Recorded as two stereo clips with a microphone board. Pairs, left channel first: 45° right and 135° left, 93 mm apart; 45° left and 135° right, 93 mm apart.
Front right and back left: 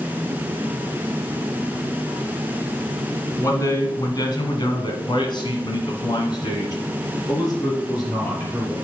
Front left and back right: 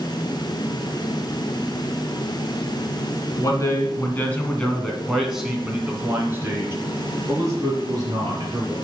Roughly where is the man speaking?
Ahead.